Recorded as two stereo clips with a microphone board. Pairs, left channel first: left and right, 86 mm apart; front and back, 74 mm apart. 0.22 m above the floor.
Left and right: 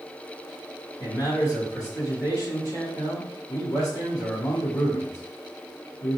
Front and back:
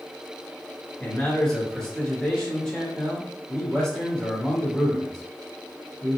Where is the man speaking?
75° left, 1.5 m.